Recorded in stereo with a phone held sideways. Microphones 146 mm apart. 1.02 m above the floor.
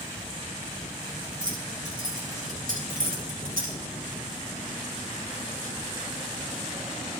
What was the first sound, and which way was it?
Keys jangling, 75° right (ahead or behind).